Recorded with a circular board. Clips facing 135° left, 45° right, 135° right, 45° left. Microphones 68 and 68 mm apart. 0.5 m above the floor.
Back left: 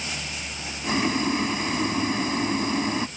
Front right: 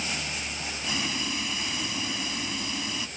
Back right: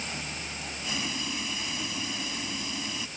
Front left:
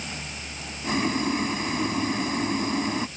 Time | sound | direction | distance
0.8 | boiling | 85° left | ?